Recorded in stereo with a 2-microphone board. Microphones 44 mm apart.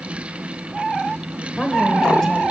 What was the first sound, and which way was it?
A woman speaking, 5° right (ahead or behind).